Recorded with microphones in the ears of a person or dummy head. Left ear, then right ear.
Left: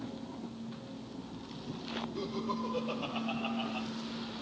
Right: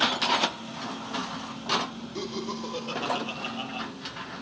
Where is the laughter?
50° right (ahead or behind), 1.5 m; by 3.9 s 30° right (ahead or behind), 2 m.